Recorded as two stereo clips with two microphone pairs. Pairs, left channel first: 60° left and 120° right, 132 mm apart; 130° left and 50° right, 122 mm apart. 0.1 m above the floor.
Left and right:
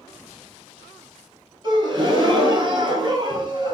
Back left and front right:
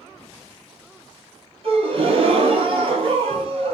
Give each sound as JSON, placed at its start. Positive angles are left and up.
{"t": 1.6, "sound": "a gasp", "azimuth_deg": -70, "distance_m": 1.3}